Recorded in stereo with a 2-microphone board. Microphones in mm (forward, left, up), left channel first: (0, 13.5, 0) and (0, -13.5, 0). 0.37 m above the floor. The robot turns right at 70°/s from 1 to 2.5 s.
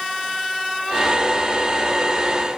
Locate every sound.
Only background noise.